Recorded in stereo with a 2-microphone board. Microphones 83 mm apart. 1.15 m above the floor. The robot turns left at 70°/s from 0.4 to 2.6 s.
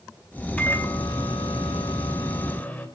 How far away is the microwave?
About 2.0 m.